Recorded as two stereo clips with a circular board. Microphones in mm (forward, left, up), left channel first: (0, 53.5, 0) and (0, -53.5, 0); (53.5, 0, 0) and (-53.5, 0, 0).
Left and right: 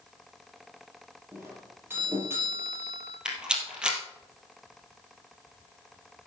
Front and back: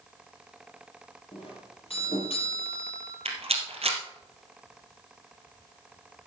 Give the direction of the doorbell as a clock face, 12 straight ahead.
1 o'clock.